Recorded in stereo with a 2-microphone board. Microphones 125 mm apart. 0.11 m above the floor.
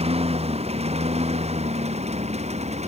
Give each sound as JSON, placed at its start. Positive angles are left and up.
{"t": 0.0, "sound": "a lawn mower", "side_deg": -60}